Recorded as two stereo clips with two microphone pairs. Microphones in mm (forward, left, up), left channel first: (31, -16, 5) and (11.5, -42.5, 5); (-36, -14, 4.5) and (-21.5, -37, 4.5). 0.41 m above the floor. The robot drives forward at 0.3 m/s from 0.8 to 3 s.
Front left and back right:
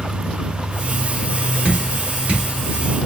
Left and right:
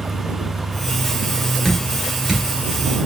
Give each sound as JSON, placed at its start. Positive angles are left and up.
{"t": 1.6, "sound": "dripping", "azimuth_deg": -150, "distance_m": 1.7}